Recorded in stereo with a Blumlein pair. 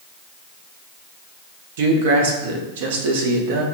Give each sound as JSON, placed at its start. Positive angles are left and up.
{"t": 1.8, "sound": "a man speaking", "azimuth_deg": -55, "distance_m": 0.8}